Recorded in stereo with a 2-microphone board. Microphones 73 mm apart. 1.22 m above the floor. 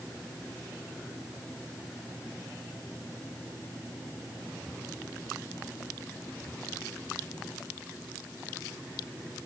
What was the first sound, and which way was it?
Only background noise.